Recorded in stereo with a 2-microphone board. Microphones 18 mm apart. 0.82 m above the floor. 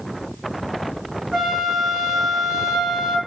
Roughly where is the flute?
Right.